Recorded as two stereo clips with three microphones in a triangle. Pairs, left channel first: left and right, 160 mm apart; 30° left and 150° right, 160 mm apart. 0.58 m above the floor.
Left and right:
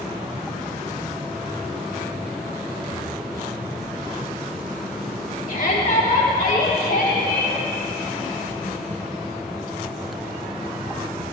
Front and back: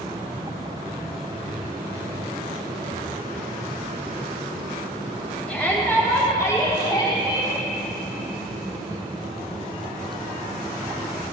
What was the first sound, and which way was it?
A shout, 110° left.